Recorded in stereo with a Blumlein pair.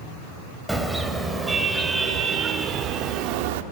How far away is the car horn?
About 3.5 m.